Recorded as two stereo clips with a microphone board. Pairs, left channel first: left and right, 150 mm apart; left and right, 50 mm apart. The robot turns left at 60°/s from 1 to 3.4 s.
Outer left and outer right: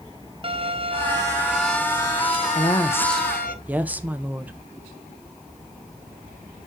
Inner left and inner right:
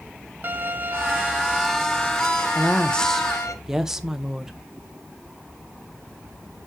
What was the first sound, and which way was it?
A violin, 140° right.